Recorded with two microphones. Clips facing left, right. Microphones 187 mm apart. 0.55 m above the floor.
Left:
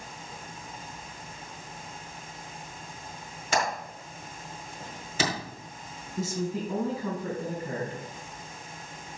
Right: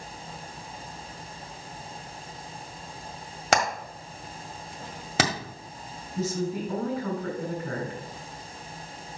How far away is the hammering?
About 1.9 m.